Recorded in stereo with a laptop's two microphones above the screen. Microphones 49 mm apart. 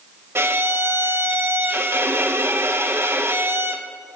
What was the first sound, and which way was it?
A violin, 55° right (ahead or behind).